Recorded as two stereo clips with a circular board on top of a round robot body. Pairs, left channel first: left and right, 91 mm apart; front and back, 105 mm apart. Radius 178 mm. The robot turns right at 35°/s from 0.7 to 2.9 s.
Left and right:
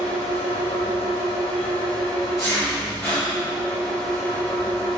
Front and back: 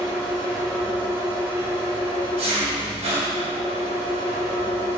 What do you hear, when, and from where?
0.0 s an engine running: 90° left, 1.2 m; by 5.0 s 170° left, 1.2 m